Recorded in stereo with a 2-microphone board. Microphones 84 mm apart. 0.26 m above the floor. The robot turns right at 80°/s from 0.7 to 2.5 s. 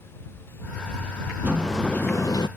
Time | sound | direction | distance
1.4 | a sliding door | 25° right | ?